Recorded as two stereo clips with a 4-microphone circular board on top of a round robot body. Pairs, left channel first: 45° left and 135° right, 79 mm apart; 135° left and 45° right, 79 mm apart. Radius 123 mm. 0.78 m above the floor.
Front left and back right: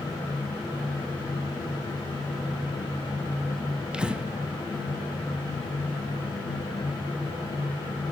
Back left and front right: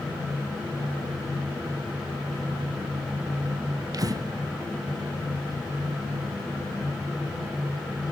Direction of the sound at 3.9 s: 60° right.